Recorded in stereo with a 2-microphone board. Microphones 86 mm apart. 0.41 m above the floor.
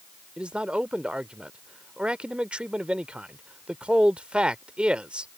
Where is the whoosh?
No whoosh in this recording.